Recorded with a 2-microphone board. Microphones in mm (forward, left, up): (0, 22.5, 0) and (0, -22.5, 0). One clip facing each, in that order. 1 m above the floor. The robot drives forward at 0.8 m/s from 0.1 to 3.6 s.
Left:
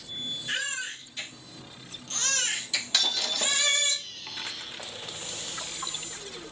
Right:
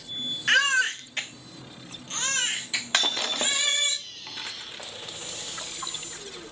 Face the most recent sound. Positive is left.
turn(degrees=-25)  # may be behind; listen again after turning